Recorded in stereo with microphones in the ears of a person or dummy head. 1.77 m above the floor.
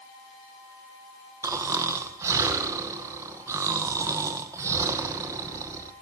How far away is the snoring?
About 1.3 m.